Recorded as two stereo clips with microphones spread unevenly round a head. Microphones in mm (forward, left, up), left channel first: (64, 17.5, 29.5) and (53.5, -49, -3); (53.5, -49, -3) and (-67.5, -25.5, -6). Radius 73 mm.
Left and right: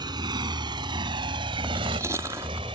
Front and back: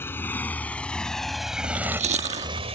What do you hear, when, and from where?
0.0 s a motorcycle: 85° right; by 2.8 s 155° right
1.6 s chewing: 175° left